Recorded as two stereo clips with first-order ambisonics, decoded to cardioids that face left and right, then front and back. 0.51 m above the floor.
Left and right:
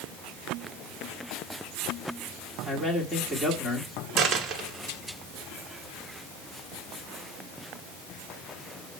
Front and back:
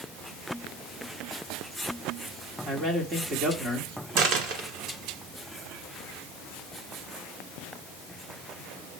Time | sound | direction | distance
2.6 | a man speaking | 170° left | 1.4 m
4.2 | a dropped coin | 145° right | 1.0 m